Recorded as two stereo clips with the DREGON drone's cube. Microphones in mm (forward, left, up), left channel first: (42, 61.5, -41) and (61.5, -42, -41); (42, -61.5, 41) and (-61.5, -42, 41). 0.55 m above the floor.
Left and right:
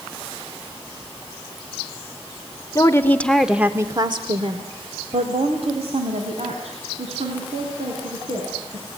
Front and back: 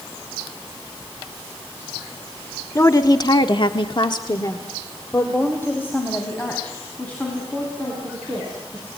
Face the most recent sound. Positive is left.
turn(degrees=-90)